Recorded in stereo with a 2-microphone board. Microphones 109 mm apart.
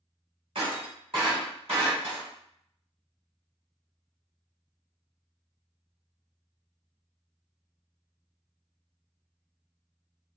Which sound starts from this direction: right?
Breaking glass, at 0.6 s.